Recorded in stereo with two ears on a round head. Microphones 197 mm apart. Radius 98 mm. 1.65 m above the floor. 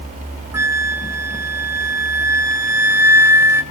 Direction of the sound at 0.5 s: 10° right (ahead or behind).